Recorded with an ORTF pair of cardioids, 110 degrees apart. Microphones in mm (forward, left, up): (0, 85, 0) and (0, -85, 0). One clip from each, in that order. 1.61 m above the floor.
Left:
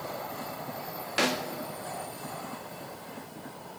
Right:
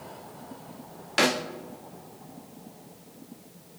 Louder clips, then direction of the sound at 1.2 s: Right 4 dB; 20° right.